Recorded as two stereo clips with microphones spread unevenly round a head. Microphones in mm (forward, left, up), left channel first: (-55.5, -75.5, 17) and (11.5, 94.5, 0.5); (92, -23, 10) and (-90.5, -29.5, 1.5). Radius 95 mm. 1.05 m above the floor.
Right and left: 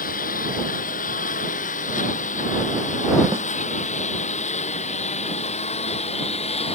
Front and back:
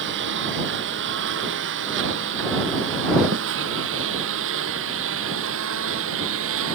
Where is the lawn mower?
155° right; by 6.8 s 170° right.